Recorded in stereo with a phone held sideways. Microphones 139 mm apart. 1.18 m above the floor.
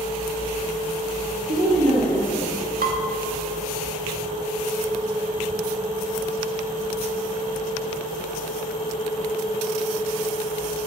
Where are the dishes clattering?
80° right, 1.4 m.